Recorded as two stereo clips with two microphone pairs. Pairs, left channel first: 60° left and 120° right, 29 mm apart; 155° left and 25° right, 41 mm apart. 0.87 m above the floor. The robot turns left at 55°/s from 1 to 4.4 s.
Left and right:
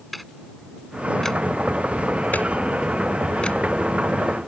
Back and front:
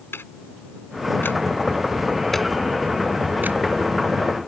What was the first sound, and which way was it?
Ticking, 145° left.